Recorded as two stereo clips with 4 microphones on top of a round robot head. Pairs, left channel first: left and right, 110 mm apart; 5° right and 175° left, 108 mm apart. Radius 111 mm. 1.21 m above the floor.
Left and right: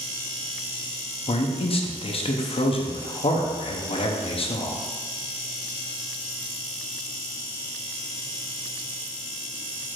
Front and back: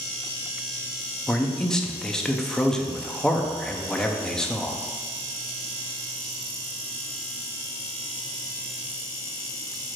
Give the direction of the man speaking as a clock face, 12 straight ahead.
9 o'clock.